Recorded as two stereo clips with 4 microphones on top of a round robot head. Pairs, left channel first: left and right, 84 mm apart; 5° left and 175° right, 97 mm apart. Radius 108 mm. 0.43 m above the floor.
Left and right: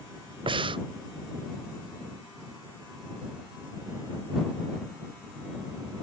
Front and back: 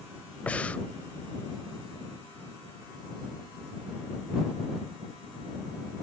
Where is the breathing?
75° right.